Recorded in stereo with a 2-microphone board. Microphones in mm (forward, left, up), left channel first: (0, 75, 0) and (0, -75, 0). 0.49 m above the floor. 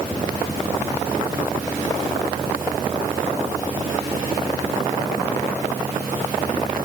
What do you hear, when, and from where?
Only background noise.